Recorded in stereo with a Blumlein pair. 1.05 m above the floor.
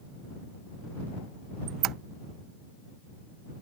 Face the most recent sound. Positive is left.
turn(degrees=-35)